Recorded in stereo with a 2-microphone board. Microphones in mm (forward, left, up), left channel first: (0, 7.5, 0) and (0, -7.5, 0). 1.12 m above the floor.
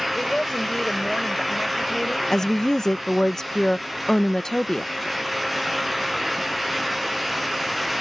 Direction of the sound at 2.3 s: 30° left (ahead or behind).